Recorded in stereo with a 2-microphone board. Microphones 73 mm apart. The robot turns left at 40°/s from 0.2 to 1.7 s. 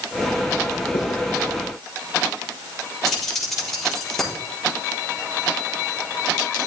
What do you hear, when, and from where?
0.9 s writing: 65° left (ahead or behind), 5 m; by 1.1 s 60° left (ahead or behind), 5 m
3.0 s keys jangling: 5° left (ahead or behind), 7 m